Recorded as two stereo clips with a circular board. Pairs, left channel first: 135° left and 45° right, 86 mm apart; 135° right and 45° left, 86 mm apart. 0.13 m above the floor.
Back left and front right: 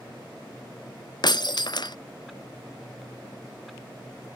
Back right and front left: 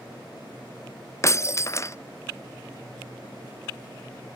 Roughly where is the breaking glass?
Behind.